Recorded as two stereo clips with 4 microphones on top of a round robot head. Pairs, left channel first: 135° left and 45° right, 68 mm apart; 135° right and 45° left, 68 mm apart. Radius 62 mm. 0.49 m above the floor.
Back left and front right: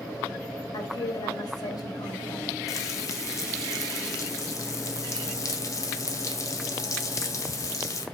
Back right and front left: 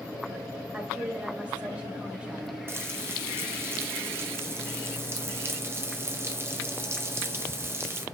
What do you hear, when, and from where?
0.7 s a woman speaking: 120° left, 3 m
2.7 s frying: 95° left, 2 m